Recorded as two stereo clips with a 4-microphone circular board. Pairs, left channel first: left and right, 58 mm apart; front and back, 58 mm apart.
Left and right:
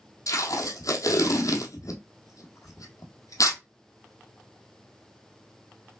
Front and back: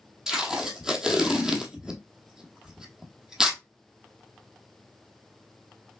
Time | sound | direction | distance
0.3 | tape being pulled | 100° left | 0.9 m